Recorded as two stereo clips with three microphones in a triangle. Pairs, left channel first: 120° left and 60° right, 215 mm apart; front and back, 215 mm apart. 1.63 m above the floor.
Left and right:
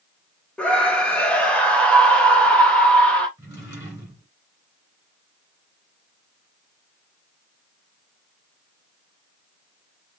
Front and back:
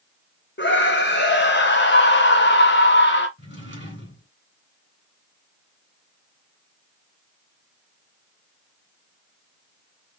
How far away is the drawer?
About 2.5 m.